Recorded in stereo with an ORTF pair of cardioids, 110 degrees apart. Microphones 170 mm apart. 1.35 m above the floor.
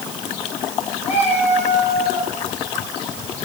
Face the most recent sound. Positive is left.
turn(degrees=45)